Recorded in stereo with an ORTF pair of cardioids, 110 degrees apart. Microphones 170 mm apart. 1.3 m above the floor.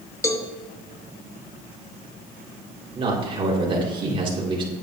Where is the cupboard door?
I don't hear a cupboard door.